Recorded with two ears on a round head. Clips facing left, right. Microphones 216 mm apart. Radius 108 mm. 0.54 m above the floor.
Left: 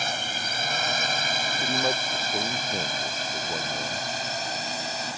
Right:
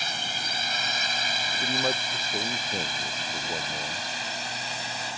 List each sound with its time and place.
0.0 s a drone: 45° left (ahead or behind); by 5.2 s 40° left (ahead or behind)
1.6 s a man speaking: 5° left (ahead or behind)